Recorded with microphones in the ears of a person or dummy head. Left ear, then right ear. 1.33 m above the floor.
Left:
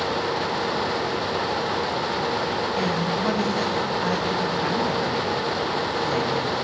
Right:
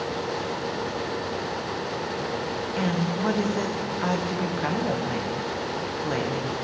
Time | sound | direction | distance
2.8 | a woman speaking | 10° right (ahead or behind) | 0.7 m